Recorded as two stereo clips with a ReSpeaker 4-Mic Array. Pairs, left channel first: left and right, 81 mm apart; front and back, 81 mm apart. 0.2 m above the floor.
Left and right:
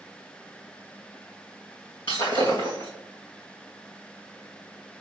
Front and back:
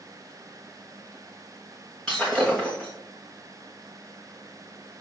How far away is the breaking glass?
About 3 m.